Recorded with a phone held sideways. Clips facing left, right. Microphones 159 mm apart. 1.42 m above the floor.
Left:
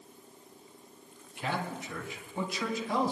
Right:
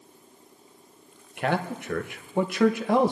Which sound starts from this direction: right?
A man speaking, at 1.4 s.